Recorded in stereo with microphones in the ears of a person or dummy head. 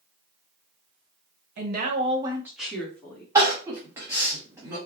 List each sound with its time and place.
1.6 s a woman speaking: 55° right (ahead or behind), 1.0 m; by 3.2 s 20° left (ahead or behind), 1.6 m
3.4 s crying: 15° right (ahead or behind), 1.3 m